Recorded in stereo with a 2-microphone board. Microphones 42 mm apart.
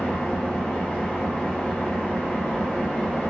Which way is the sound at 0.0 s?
20° left (ahead or behind).